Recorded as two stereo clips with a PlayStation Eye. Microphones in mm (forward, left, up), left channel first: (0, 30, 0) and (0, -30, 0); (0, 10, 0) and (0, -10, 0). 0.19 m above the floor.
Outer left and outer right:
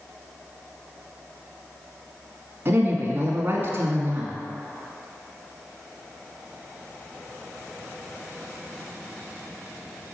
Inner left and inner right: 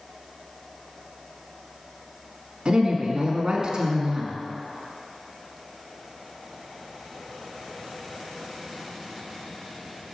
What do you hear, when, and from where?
2.6 s a woman speaking: 40° right (ahead or behind), 1.6 m